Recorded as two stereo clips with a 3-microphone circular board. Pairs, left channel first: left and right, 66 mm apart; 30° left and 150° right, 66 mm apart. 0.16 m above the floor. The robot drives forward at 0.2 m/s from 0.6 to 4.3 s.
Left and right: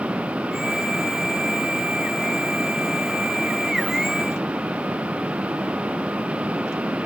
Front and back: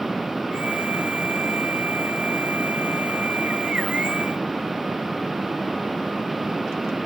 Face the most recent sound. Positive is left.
No sound to turn to.